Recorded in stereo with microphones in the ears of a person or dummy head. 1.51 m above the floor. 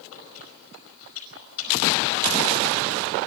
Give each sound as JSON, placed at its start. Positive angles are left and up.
{"t": 0.1, "sound": "chewing", "side_deg": 80, "distance_m": 5.0}